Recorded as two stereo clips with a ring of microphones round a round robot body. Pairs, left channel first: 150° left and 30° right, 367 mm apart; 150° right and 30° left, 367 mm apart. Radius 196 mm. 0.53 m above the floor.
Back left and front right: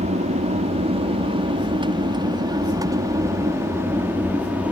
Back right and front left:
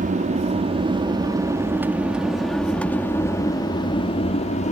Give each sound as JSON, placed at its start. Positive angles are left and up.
{"t": 0.0, "sound": "an aircraft", "azimuth_deg": 5}